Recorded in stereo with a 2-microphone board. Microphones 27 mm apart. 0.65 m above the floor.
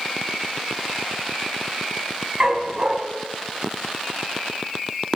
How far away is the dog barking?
About 2 m.